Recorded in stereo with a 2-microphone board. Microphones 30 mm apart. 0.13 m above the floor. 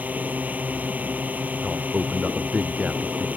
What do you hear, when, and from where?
0.0 s a drone: 65° right (ahead or behind)
1.6 s a man speaking: 40° right (ahead or behind)